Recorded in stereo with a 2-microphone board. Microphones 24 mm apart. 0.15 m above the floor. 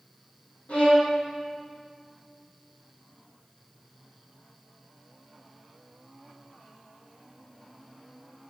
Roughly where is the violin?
Left.